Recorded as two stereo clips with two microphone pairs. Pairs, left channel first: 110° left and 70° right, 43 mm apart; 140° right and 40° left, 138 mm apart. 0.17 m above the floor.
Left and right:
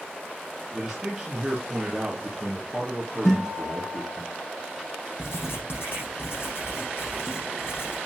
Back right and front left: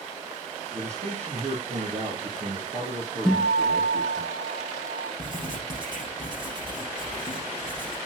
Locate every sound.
0.7 s a man speaking: 15° left, 3 m
3.2 s a guitar: 105° left, 7 m
5.2 s writing: 100° left, 6.5 m